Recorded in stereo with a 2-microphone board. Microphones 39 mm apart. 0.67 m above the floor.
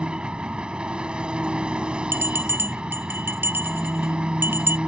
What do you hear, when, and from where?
0.0 s an engine running: 30° right (ahead or behind)
2.1 s a bell: 80° right